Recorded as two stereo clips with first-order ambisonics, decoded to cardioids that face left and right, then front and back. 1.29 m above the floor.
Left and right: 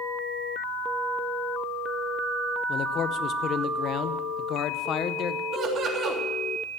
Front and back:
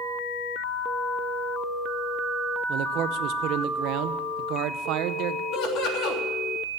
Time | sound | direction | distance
2.7 | a man speaking | 145° left | 0.7 m
5.5 | laughter | 35° right | 3 m